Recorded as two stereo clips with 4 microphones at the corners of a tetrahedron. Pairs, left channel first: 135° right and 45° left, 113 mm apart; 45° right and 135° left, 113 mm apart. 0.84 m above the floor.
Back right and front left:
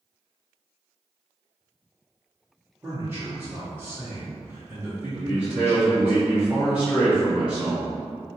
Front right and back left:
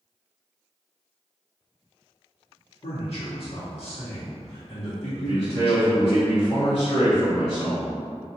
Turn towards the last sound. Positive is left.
turn(degrees=-40)